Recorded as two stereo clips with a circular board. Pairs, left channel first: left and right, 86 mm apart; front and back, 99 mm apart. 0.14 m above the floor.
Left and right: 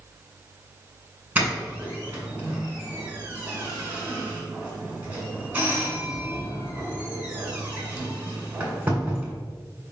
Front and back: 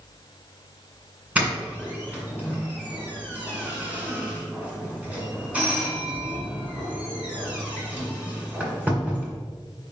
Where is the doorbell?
130° right, 1.9 m.